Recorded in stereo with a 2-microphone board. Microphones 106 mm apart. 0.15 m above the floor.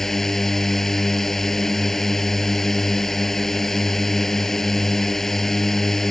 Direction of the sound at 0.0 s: 5° left (ahead or behind).